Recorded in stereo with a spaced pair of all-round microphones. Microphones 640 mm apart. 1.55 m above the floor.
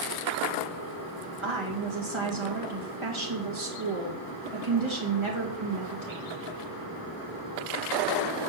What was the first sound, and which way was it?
A woman speaking, 50° right (ahead or behind).